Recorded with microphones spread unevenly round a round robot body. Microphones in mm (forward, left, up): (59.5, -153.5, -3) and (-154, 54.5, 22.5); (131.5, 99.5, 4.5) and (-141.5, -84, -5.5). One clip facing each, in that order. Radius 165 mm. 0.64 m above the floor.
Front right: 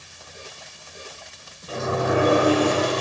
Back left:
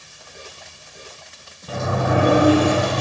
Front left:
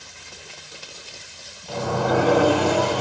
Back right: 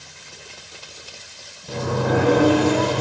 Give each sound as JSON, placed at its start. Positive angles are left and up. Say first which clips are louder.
{"t": 1.7, "sound": "a sliding door", "louder": "back left 1 dB, back right 1 dB", "azimuth_deg": 150, "distance_m": 1.3}